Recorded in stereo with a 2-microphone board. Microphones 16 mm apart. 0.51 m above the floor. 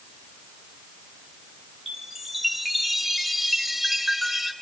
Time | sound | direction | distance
1.9 | a chime | 5° right (ahead or behind) | 1.6 m